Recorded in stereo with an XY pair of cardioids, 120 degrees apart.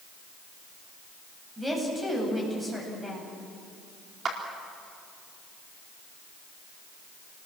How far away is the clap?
About 4 m.